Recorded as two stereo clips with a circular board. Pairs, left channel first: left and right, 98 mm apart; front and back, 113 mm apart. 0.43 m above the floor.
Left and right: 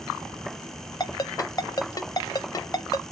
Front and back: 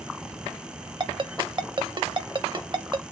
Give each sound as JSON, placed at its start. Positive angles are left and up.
{"t": 1.0, "sound": "a ringtone", "azimuth_deg": 135, "distance_m": 0.5}